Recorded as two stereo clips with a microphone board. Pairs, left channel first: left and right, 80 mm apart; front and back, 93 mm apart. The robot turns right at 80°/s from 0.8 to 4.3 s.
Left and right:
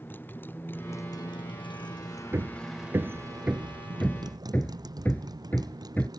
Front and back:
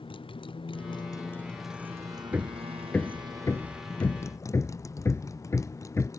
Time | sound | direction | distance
0.0 | a motorcycle | 25° left | ?
2.3 | hammering | 120° right | ?